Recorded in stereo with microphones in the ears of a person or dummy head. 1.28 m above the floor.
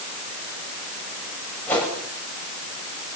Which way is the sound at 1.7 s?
5° left (ahead or behind).